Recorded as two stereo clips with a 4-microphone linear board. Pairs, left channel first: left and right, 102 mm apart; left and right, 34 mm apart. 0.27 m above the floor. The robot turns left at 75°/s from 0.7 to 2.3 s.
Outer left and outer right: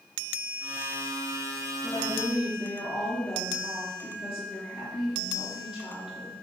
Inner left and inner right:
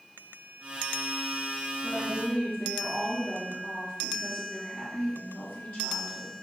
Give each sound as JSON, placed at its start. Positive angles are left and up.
{"t": 1.8, "sound": "a woman speaking", "azimuth_deg": 100, "distance_m": 3.5}